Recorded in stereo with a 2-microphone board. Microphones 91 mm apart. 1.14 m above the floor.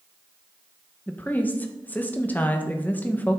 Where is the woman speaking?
20° left (ahead or behind), 1.0 m.